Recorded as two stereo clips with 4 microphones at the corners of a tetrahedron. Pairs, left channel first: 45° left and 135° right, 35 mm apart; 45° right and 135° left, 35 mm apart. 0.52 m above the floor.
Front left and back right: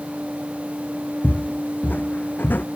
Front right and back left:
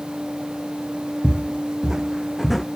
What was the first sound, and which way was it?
Footsteps, 80° left.